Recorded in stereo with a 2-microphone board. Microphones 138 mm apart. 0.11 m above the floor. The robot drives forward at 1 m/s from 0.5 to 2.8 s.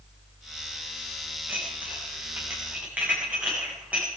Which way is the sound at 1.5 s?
10° right (ahead or behind).